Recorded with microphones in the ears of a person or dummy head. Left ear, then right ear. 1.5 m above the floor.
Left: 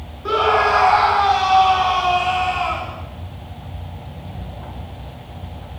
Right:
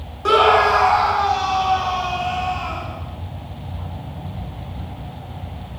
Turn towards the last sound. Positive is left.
turn(degrees=30)  # may be behind; listen again after turning